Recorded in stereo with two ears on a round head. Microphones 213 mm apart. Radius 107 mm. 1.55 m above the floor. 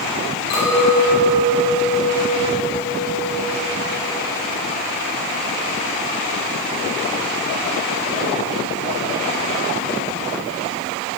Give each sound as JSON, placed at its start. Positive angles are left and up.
{"t": 0.5, "sound": "a clink", "side_deg": 80, "distance_m": 5.5}